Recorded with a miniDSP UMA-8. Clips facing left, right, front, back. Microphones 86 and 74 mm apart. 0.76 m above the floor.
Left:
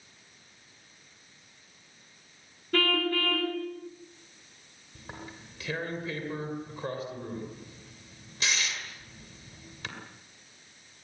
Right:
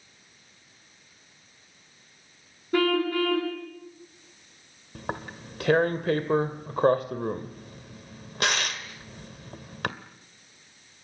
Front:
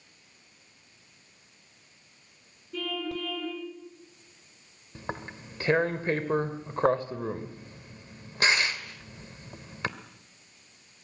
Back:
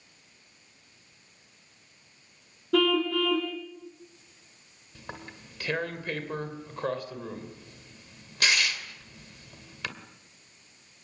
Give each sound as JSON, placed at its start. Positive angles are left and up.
{"t": 2.7, "sound": "a car horn", "azimuth_deg": -165, "distance_m": 4.0}
{"t": 5.0, "sound": "tearing paper", "azimuth_deg": -60, "distance_m": 2.0}